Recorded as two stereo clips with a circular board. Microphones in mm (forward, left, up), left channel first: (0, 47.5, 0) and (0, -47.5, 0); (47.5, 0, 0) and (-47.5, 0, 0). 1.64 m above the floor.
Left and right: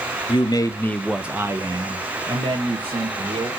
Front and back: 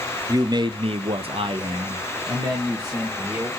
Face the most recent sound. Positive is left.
turn(degrees=-110)